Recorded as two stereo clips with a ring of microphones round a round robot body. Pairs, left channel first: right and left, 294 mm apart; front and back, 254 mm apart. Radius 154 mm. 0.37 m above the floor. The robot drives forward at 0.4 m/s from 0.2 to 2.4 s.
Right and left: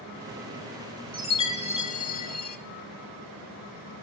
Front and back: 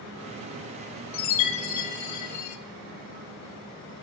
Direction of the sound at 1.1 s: 15° right.